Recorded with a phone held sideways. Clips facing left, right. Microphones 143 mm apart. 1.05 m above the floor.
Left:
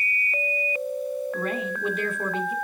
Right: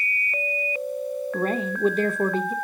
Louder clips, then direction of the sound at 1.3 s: Right 3 dB; 35° right (ahead or behind).